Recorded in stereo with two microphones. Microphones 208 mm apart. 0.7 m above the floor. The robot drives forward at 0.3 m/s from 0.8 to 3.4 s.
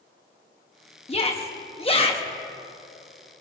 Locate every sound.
1.1 s a shout: 30° left (ahead or behind), 1.0 m; by 2.2 s 25° left (ahead or behind), 1.1 m